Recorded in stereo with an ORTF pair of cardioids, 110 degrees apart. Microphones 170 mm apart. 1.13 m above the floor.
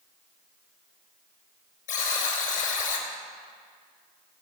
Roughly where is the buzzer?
Ahead left.